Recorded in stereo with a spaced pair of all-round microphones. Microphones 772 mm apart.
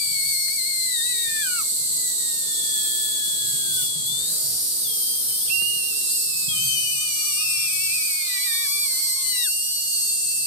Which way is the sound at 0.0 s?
75° right (ahead or behind).